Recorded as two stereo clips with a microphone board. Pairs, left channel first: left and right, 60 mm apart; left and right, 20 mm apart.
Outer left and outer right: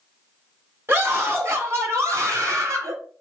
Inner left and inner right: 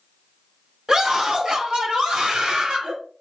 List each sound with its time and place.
0.9 s a scream: 40° right (ahead or behind), 4 m; by 3.0 s 65° right (ahead or behind), 3.5 m